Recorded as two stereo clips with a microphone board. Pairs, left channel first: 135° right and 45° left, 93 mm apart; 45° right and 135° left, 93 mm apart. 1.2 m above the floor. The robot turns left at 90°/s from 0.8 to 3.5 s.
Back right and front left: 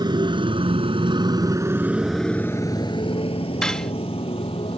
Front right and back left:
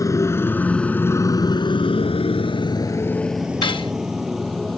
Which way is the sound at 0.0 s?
5° left.